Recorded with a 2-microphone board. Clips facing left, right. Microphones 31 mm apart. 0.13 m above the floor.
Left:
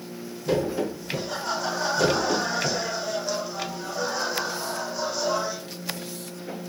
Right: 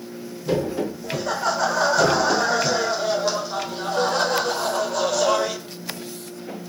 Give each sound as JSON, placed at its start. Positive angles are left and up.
{"t": 1.0, "sound": "laughter", "side_deg": -75, "distance_m": 8.0}